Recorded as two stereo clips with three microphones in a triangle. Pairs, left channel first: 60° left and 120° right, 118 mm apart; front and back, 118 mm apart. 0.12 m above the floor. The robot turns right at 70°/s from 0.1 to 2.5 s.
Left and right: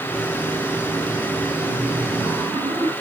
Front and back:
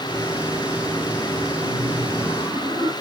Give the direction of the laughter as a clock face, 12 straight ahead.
7 o'clock.